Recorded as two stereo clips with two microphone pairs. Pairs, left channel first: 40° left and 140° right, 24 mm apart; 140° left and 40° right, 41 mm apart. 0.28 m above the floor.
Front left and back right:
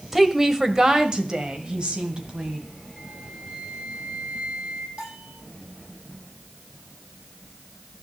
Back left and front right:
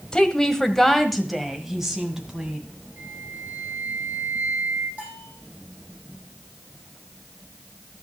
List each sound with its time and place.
0.1 s a woman speaking: 160° left, 1.3 m; by 2.6 s 110° right, 2 m
3.0 s a flute: 85° right, 5.5 m
5.0 s a bell: 95° right, 8 m